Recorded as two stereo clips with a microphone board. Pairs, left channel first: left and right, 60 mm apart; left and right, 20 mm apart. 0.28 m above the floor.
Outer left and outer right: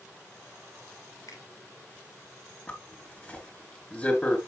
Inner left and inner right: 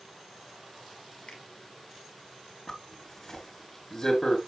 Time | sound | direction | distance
1.3 | a finger snap | 70° left (ahead or behind) | 5.5 m
2.7 | a zipper | 25° left (ahead or behind) | 4.5 m